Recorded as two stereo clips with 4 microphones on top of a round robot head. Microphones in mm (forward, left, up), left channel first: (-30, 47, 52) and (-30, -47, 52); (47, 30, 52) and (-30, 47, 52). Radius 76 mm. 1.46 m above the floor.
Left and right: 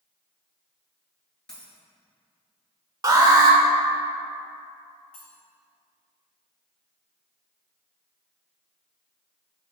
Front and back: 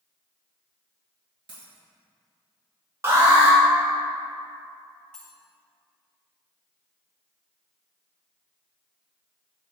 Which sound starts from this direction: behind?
A dropped coin, at 1.5 s.